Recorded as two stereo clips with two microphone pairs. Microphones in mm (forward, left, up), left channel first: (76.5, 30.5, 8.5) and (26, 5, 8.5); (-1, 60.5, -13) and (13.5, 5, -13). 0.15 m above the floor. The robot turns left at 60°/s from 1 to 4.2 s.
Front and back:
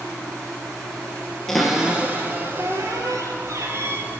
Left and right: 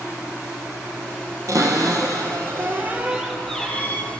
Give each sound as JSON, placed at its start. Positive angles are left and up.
{"t": 1.5, "sound": "a cupboard door", "azimuth_deg": -50, "distance_m": 1.1}